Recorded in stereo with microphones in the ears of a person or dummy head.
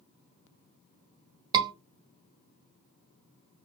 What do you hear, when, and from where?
1.5 s a scream: 25° right (ahead or behind), 0.6 m